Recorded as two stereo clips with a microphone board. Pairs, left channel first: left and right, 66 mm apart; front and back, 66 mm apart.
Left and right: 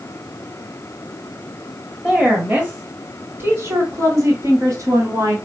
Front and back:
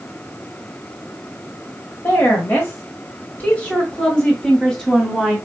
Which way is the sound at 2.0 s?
20° right.